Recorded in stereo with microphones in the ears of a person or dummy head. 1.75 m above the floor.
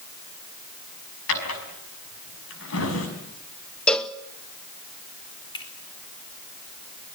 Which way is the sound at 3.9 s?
5° left (ahead or behind).